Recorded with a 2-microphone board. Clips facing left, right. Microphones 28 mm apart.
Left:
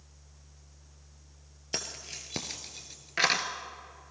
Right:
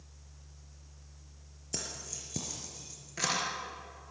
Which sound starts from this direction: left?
Keys jangling, at 1.7 s.